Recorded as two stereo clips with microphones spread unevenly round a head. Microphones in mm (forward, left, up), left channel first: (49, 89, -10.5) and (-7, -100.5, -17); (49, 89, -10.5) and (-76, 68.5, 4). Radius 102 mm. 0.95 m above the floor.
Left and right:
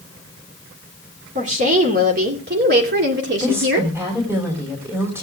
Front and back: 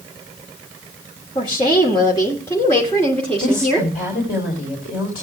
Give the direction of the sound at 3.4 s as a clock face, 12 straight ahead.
1 o'clock.